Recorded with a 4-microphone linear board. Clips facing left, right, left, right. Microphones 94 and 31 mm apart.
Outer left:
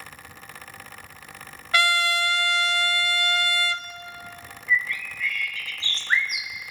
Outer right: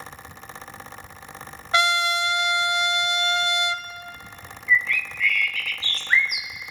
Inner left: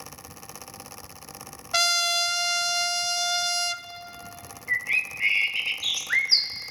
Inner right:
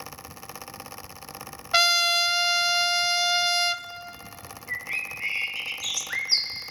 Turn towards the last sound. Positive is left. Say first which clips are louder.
# outer right 3 dB, inner left 6 dB
turn(degrees=25)  # may be behind; listen again after turning